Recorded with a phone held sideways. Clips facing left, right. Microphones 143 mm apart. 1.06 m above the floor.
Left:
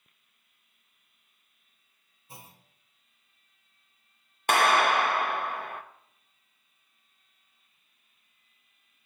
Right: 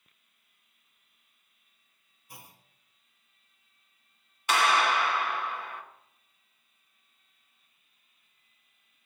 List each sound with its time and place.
2.3 s a clunk: 25° left (ahead or behind), 1.0 m
4.5 s a clap: 55° left (ahead or behind), 0.9 m